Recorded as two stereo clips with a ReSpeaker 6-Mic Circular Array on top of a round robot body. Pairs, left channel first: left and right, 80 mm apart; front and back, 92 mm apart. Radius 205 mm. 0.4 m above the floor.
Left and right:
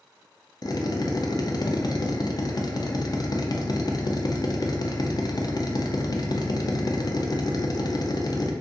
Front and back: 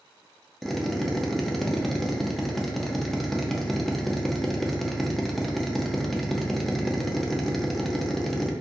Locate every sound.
0.6 s a drill: 90° left, 0.6 m